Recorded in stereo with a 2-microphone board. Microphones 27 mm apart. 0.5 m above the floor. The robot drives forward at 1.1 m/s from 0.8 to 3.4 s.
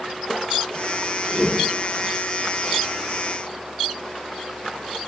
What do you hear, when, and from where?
1.3 s a whoosh: 15° right (ahead or behind), 1.8 m; by 1.7 s 10° right (ahead or behind), 2 m